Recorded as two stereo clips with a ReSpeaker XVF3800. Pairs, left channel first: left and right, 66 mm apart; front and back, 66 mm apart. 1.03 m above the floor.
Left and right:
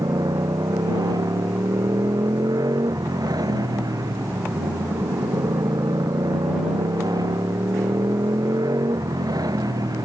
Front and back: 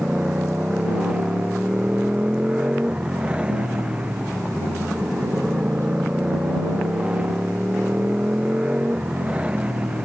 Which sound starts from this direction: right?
A motorcycle, at 0.0 s.